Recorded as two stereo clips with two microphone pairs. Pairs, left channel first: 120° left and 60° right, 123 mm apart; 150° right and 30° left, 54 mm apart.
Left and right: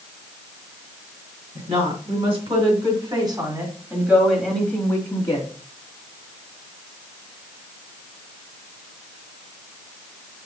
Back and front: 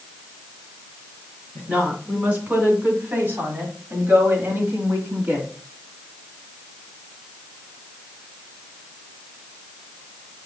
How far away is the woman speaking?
About 3 m.